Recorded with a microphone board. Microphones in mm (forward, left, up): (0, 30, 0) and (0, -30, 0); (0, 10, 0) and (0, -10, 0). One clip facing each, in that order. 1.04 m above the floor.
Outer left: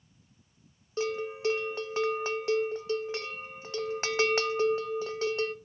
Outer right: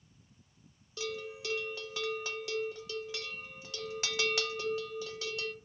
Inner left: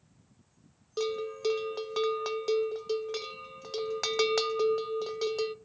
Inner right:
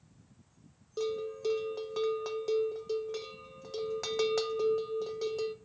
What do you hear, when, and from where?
1.0 s a bell: 40° left (ahead or behind), 0.5 m